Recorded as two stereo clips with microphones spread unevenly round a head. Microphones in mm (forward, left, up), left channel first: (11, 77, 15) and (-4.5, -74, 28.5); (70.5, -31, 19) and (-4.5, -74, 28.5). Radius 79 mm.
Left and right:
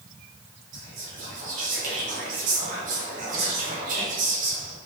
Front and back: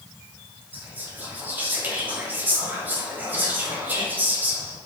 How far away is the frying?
No frying in this recording.